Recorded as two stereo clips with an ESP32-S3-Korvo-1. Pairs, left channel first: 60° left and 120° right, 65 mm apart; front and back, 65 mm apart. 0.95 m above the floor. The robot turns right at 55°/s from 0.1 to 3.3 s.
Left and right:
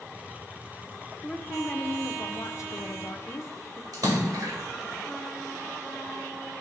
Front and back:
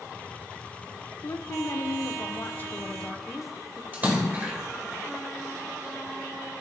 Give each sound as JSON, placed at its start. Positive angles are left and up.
{"t": 1.2, "sound": "a woman speaking", "azimuth_deg": -20, "distance_m": 0.7}
{"t": 3.9, "sound": "a splash", "azimuth_deg": -120, "distance_m": 1.6}